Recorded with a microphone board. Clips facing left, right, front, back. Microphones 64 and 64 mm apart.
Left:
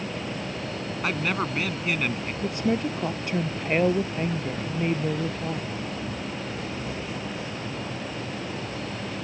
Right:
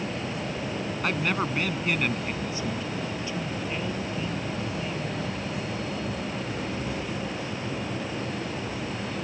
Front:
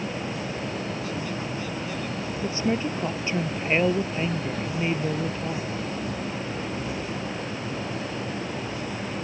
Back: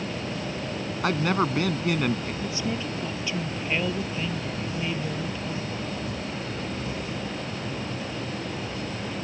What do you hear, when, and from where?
1.0 s a man speaking: straight behind
2.4 s a woman speaking: 55° left